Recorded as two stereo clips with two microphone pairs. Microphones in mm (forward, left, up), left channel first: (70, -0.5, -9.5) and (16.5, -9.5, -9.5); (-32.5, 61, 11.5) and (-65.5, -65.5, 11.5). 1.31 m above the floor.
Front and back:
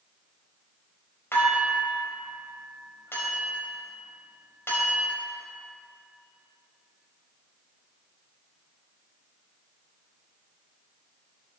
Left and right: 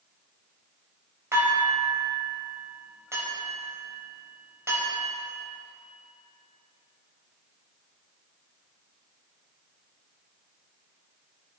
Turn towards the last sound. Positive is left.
turn(degrees=-35)